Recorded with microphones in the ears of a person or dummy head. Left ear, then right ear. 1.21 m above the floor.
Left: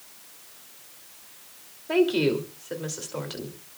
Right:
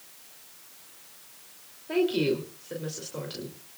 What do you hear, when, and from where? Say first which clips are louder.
1.9 s a woman speaking: left 3 dB; 30° left (ahead or behind), 3 m